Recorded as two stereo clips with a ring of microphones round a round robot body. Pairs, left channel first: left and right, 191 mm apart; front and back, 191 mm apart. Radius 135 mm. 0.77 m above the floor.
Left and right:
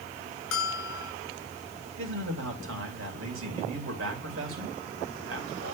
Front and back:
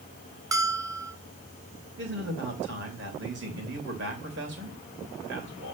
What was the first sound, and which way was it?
A bell, 110° left.